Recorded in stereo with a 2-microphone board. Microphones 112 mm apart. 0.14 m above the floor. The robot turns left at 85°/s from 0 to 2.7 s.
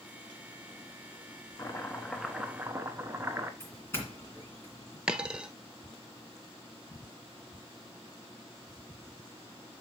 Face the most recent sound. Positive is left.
turn(degrees=-5)  # may be behind; listen again after turning